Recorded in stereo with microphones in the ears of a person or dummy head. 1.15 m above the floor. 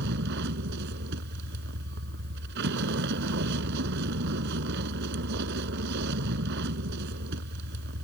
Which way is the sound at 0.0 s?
65° right (ahead or behind).